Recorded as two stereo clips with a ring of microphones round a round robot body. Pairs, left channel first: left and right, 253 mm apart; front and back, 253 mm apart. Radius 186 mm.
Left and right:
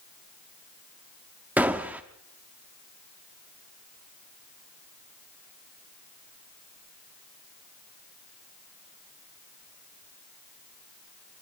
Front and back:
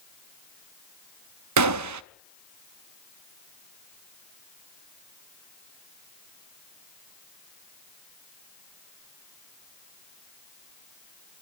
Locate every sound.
1.6 s a gunshot: 175° right, 0.6 m